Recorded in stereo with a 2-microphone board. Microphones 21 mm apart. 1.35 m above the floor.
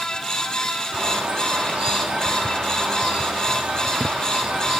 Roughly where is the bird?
Right.